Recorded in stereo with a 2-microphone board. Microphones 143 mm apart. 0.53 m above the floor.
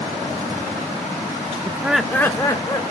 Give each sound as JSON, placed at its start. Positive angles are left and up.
{"t": 1.6, "sound": "laughter", "side_deg": -25, "distance_m": 0.7}